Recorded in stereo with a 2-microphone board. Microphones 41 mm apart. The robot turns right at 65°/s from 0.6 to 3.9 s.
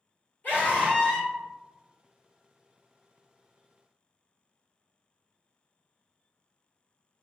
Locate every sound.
0.4 s a scream: 105° left, 1.7 m; by 1.3 s 150° left, 1.7 m